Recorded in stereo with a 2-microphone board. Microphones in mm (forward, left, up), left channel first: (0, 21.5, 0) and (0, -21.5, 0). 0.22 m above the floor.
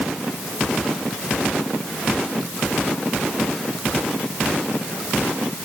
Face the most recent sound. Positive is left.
No sound to turn to.